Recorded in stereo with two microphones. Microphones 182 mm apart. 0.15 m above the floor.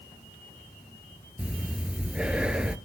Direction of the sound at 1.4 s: 5° right (ahead or behind).